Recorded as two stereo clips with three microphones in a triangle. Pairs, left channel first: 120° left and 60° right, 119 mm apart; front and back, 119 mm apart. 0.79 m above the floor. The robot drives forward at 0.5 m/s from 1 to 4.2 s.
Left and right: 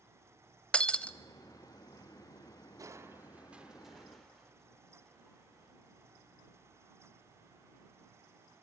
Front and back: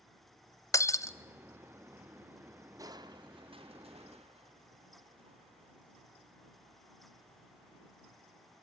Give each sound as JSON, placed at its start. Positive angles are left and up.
{"t": 0.7, "sound": "breaking glass", "azimuth_deg": 45, "distance_m": 0.7}
{"t": 2.8, "sound": "crushing", "azimuth_deg": -120, "distance_m": 0.6}